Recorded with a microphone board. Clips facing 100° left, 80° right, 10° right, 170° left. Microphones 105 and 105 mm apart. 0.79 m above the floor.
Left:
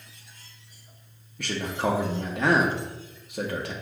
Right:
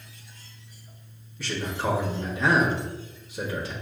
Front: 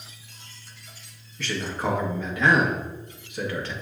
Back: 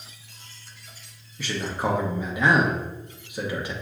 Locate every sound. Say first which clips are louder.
1.4 s a man speaking: left 2 dB, back 1 dB; 95° left, 0.9 m